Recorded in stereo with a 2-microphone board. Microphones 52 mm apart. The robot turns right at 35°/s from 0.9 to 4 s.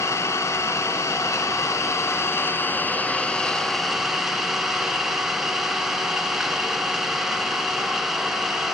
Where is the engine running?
80° left, 1.6 m; by 8.7 s 170° right, 1.6 m.